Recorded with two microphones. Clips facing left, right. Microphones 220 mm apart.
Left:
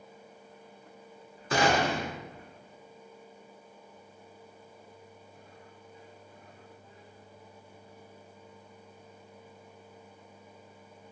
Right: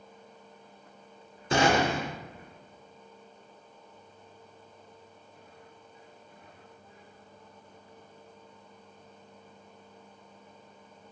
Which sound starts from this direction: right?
A gunshot, at 1.5 s.